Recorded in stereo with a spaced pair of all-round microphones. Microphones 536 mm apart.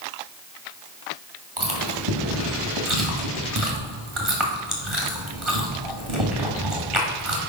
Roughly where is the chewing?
Right.